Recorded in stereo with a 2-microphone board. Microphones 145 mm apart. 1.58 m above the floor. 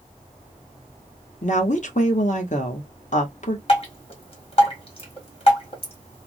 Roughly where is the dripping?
Left.